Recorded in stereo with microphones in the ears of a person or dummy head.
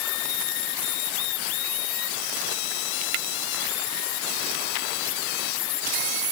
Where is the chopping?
I don't hear chopping.